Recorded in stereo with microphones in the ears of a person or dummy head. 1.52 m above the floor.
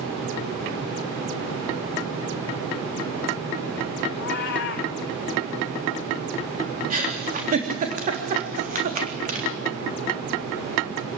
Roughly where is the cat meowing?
Left.